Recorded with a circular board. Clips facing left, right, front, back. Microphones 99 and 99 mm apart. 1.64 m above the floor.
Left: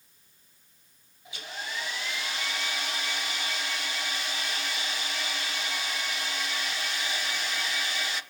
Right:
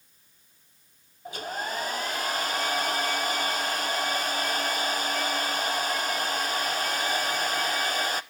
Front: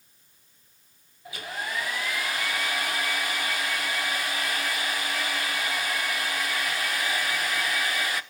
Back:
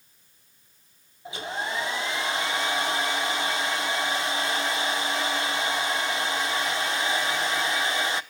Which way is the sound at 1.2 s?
120° right.